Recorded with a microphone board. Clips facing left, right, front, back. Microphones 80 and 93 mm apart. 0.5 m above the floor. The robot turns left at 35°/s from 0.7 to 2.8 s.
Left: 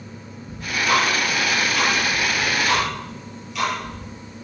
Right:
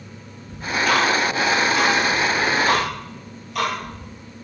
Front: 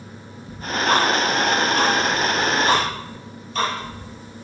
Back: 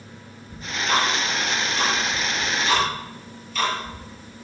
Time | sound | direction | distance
0.5 | ticking | 25° left | 9.5 m